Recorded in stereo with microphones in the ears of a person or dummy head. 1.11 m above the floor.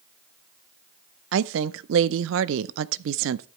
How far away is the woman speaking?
About 0.5 m.